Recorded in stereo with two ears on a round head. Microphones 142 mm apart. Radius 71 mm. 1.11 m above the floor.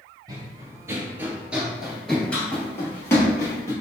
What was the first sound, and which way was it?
Running footsteps, 25° right (ahead or behind).